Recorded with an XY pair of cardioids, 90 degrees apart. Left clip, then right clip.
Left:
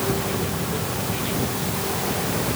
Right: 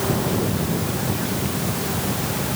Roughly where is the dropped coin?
No dropped coin in this recording.